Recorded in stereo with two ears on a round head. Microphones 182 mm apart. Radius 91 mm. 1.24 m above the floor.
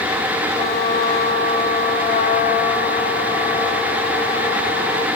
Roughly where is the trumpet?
Left.